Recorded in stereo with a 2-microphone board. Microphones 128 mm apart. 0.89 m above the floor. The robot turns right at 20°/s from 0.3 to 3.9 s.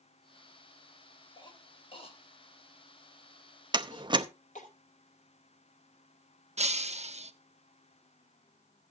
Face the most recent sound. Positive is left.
turn(degrees=-60)  # may be behind; listen again after turning